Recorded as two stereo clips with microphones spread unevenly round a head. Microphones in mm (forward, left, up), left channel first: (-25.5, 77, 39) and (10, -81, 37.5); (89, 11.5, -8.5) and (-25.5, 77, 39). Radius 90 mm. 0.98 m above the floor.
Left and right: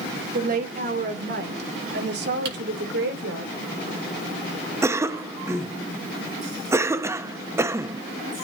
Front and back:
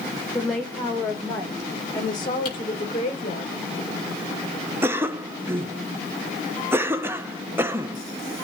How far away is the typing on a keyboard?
About 6 m.